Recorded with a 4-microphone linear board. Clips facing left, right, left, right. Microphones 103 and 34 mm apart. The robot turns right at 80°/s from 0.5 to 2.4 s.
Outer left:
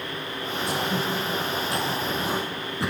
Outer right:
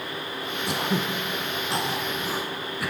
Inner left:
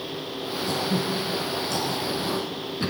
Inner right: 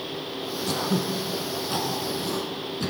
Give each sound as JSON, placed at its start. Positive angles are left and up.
{"t": 0.7, "sound": "throat clearing", "side_deg": -65, "distance_m": 1.5}